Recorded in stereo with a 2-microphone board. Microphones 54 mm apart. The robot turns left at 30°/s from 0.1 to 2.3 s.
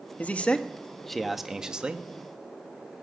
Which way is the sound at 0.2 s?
30° left.